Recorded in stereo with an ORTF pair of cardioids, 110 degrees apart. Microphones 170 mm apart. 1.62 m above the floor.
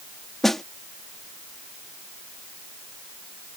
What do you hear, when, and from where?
0.4 s a snare drum: straight ahead